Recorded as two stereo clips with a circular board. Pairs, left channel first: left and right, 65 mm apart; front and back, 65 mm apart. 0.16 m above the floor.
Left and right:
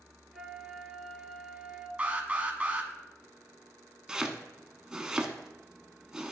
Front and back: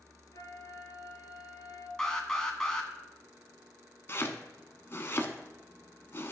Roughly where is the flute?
Ahead.